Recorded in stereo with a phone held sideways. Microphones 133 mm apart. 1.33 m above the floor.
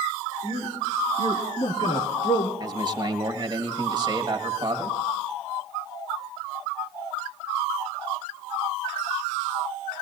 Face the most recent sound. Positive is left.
turn(degrees=-30)  # may be behind; listen again after turning